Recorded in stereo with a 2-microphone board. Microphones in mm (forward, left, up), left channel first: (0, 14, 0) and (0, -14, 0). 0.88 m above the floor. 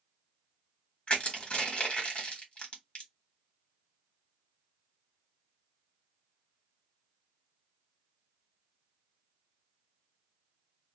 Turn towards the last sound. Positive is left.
turn(degrees=45)  # may be behind; listen again after turning